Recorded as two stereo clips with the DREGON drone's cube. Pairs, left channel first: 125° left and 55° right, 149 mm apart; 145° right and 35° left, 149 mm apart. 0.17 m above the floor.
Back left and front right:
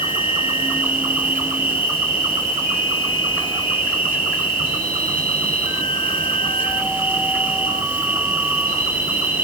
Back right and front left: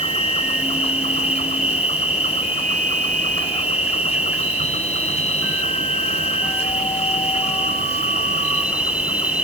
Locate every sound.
0.0 s an insect: 130° right, 1.3 m